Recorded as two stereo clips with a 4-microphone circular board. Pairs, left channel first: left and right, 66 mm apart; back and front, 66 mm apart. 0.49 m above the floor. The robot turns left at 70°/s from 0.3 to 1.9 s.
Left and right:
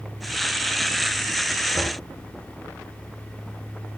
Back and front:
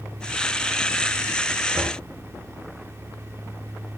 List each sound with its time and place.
1.7 s knocking: 40° left, 5 m; by 2.0 s 30° left, 5 m